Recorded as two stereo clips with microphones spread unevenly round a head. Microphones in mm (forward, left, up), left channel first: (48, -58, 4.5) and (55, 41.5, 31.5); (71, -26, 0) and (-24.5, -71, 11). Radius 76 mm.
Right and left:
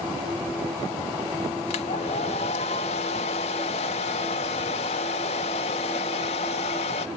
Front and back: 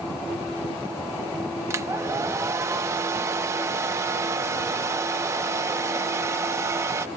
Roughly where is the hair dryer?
Behind right.